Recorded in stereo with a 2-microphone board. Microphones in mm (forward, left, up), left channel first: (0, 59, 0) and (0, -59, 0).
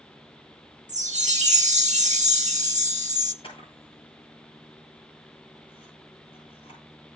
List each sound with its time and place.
0.9 s a chime: 85° right, 1.3 m
3.4 s a camera shutter: 50° left (ahead or behind), 8.5 m